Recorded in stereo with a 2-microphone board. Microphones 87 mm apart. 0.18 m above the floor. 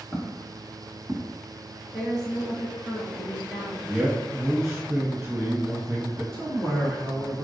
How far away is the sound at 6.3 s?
About 1.7 m.